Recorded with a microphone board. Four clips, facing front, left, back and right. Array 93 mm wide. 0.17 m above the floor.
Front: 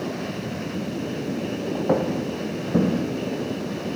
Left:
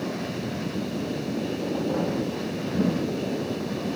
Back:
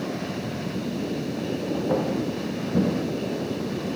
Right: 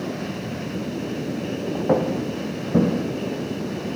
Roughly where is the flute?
No flute in this recording.